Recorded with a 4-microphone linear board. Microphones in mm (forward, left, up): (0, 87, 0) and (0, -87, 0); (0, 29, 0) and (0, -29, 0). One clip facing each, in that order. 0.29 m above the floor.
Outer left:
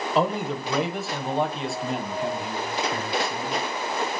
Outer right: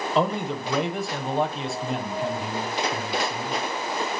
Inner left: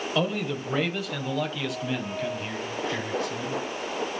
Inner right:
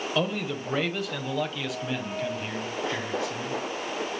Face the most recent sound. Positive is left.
turn(degrees=-5)  # may be behind; listen again after turning